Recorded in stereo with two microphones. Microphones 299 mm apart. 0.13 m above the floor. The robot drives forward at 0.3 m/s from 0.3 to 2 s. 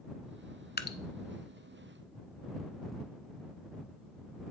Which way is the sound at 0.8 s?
35° left (ahead or behind).